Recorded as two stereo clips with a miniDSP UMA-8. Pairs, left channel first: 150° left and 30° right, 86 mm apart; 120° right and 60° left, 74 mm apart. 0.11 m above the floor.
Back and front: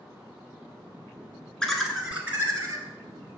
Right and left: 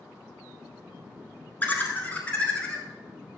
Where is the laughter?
140° right, 1.4 m; by 2.9 s 50° right, 1.6 m.